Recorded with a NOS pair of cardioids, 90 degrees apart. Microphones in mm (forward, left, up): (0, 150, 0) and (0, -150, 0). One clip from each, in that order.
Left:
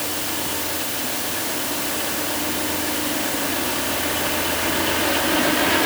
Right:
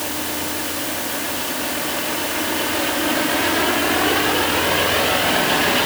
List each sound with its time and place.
Only background noise.